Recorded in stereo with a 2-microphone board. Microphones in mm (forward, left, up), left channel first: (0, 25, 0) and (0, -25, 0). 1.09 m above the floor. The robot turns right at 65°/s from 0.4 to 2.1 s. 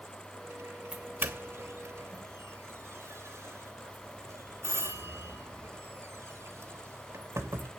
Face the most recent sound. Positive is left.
turn(degrees=-70)  # may be behind; listen again after turning